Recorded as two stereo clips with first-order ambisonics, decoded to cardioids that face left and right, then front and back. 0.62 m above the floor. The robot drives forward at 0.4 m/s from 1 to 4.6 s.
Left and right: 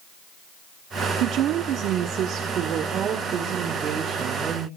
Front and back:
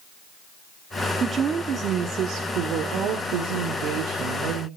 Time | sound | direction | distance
1.2 | a woman speaking | 115° right | 1.1 m